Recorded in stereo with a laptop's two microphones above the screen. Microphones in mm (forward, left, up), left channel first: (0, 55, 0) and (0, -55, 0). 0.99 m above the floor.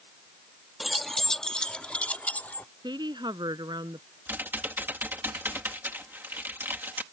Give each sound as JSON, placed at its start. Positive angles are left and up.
{"t": 0.8, "sound": "keys jangling", "side_deg": 0}
{"t": 2.8, "sound": "a woman speaking", "side_deg": -45}
{"t": 4.3, "sound": "typing on a keyboard", "side_deg": -20}